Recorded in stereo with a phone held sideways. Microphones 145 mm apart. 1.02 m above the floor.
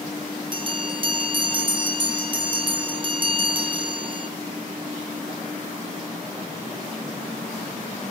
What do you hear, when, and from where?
0.5 s a bell: 35° right (ahead or behind), 2.5 m